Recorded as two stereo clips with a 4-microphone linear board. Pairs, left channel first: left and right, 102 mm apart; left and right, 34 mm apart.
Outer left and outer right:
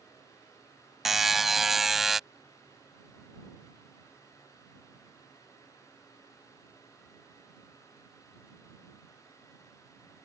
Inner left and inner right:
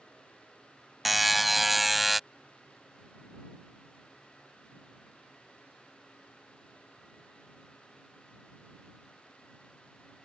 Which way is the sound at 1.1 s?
5° right (ahead or behind).